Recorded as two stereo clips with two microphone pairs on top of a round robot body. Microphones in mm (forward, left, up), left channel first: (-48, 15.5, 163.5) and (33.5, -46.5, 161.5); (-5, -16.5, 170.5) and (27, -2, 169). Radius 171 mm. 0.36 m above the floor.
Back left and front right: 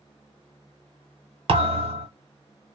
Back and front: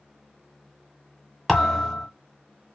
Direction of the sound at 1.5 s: 70° right.